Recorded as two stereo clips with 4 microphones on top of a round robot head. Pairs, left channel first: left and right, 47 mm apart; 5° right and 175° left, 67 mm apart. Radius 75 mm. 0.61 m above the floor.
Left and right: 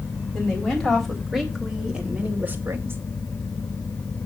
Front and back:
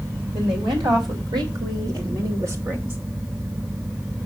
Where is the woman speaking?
165° left, 4 m; by 3.0 s 120° right, 2.5 m.